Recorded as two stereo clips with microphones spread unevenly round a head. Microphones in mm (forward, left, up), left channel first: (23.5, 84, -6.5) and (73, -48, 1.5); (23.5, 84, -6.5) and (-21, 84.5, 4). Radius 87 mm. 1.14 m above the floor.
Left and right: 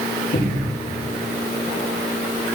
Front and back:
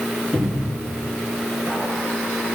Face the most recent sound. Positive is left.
turn(degrees=90)